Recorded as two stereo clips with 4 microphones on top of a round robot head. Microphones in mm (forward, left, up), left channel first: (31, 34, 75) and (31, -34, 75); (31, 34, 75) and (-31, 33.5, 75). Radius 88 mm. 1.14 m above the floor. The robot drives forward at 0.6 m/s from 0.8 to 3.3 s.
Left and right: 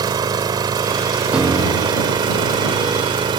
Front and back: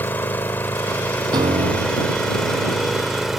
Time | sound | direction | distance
0.0 | an engine running | 65° right | ?
1.3 | a piano | 165° right | ?